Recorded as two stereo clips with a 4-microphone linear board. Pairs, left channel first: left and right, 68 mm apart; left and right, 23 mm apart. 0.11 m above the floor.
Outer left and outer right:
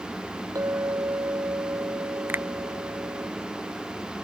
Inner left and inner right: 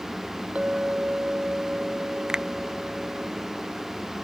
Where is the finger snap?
30° right (ahead or behind).